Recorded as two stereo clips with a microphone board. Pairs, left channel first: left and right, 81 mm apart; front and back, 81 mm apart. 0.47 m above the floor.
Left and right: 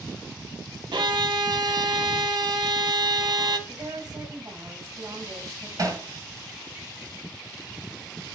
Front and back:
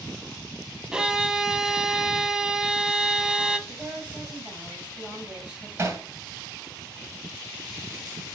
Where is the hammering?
125° right, 2 m.